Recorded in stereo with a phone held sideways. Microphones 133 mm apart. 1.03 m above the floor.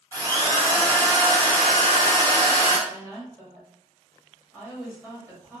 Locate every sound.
0.1 s a drill: 15° left (ahead or behind), 1.0 m
2.9 s a woman speaking: 10° left (ahead or behind), 1.9 m